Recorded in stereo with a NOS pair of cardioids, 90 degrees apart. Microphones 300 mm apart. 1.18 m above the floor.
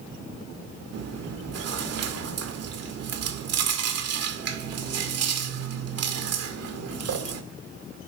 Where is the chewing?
55° right, 2.0 m.